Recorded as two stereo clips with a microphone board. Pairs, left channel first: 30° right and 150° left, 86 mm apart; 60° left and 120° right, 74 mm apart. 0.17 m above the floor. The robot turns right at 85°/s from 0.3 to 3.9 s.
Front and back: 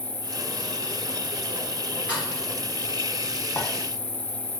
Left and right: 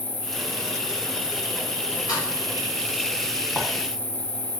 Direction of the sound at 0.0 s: Straight ahead.